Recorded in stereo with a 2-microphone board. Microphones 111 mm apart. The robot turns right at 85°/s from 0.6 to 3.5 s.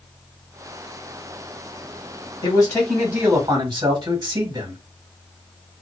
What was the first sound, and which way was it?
A man speaking, 130° left.